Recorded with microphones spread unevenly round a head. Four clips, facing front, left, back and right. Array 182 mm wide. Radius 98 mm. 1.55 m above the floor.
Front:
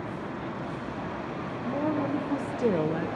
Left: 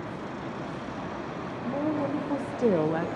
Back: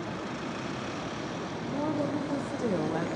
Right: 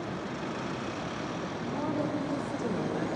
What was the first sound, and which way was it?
A woman speaking, 50° left.